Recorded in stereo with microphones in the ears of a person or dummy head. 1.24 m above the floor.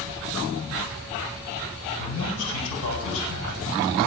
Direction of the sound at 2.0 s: 80° left.